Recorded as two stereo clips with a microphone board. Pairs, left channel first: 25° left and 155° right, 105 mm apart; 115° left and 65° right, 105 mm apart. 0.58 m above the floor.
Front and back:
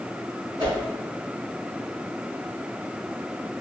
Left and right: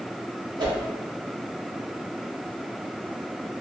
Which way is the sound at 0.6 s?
110° right.